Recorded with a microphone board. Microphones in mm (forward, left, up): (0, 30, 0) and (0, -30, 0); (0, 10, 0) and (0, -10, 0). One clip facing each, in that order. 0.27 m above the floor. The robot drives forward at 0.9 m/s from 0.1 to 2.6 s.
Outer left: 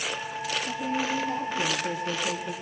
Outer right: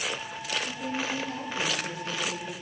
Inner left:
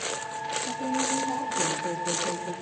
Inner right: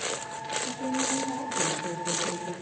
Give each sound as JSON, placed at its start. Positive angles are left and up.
{"t": 0.7, "sound": "a woman speaking", "side_deg": 25, "distance_m": 9.0}